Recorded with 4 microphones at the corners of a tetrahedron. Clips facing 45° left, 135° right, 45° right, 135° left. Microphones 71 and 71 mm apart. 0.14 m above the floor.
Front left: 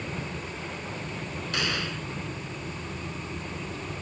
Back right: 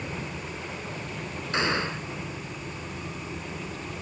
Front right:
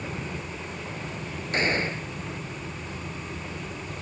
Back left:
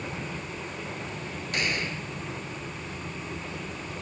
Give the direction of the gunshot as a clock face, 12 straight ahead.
3 o'clock.